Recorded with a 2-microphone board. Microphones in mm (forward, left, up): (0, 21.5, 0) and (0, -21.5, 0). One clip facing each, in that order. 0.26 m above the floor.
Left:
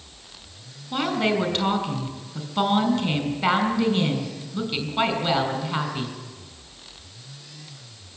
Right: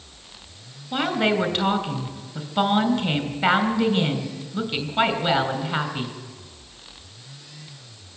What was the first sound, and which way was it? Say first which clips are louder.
A woman speaking: right 1 dB; 10° right (ahead or behind).